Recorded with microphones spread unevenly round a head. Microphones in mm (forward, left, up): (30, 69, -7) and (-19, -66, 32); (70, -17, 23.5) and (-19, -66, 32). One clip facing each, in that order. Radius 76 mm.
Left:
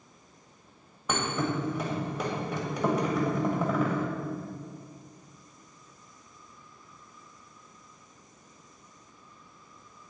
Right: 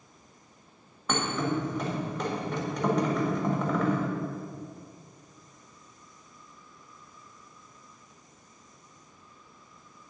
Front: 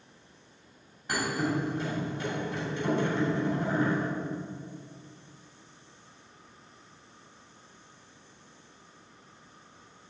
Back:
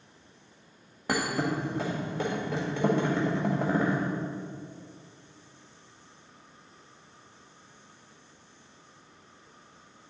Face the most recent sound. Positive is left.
turn(degrees=160)